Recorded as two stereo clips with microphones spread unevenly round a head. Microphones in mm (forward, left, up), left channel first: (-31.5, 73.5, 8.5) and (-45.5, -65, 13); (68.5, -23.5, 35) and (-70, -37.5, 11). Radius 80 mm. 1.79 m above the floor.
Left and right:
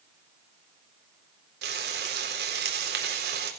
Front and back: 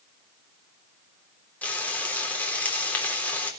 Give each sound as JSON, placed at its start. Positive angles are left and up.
{"t": 1.6, "sound": "frying", "azimuth_deg": -70, "distance_m": 3.5}